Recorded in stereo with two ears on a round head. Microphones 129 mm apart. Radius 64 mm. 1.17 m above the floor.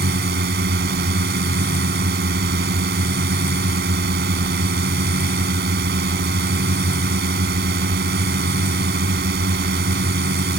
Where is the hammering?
I don't hear hammering.